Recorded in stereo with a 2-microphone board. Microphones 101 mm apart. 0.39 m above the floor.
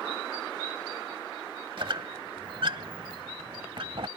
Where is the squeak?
55° right (ahead or behind).